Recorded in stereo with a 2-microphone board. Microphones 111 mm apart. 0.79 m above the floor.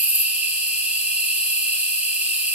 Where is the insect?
15° right (ahead or behind), 1.5 m.